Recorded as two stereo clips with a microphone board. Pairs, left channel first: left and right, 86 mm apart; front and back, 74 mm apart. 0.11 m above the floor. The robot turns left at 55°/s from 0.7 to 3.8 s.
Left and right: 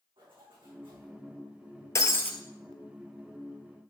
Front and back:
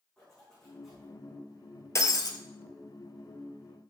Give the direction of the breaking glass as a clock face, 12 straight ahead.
11 o'clock.